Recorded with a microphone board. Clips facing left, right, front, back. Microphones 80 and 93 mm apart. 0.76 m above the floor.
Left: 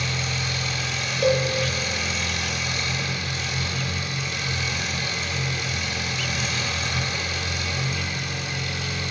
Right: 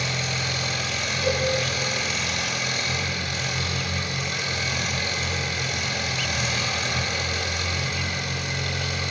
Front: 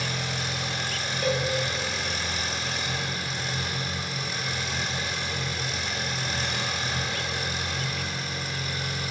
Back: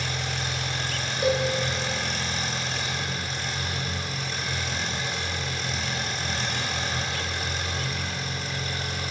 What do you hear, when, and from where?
0.0 s an engine running: 80° right, 2.5 m
1.2 s a cowbell: 110° left, 1.0 m